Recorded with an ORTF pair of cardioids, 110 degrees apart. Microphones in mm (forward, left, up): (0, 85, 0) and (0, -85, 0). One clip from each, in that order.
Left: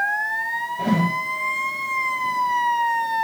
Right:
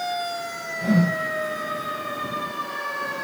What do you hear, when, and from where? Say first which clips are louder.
0.8 s a whoosh: right 2 dB; 65° left, 6.5 m